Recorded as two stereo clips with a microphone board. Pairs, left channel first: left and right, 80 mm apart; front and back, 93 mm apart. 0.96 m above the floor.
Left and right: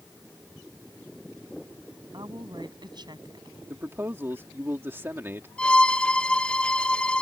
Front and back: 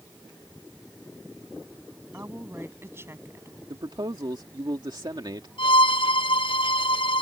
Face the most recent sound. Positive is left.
turn(degrees=15)